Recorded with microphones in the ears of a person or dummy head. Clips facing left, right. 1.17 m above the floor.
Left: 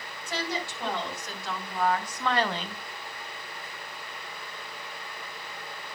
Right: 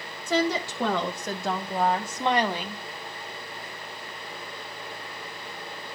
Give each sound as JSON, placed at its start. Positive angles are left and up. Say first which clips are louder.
{"t": 0.3, "sound": "a woman speaking", "louder": "right 8 dB", "side_deg": -60, "distance_m": 1.6}